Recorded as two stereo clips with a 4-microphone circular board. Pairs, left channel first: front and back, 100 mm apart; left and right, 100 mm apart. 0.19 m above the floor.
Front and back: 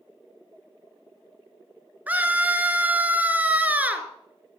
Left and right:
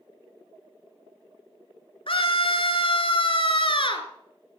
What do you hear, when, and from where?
2.1 s a scream: 105° left, 2.5 m